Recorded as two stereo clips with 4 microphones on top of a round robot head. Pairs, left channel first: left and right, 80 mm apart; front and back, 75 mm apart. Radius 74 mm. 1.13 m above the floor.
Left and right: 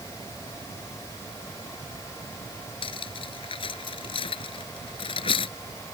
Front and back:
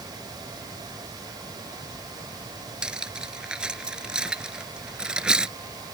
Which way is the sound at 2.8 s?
105° left.